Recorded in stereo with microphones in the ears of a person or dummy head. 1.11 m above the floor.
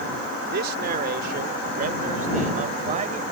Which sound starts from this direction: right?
A man speaking, at 0.5 s.